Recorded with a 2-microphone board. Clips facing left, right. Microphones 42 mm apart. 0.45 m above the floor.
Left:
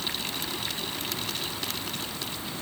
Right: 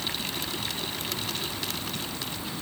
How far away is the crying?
No crying in this recording.